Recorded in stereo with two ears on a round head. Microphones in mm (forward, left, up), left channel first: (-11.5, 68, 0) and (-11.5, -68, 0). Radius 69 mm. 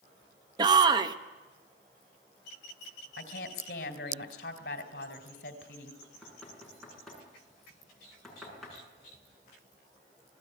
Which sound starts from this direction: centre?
Knocking, at 6.0 s.